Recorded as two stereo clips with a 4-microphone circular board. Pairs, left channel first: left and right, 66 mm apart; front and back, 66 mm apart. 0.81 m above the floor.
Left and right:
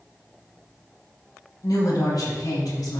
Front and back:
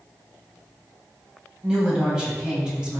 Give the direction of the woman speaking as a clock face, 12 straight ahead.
9 o'clock.